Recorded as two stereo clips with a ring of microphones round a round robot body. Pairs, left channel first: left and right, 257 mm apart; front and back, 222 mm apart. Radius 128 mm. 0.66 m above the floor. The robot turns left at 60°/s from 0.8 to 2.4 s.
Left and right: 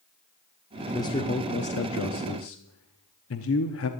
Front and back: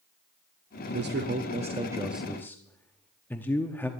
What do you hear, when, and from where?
0.9 s a man speaking: 170° left, 0.9 m; by 3.9 s 80° left, 0.9 m